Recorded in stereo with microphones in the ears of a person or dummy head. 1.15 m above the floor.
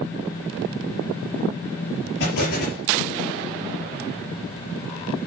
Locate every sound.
2.2 s an explosion: 60° left (ahead or behind), 6 m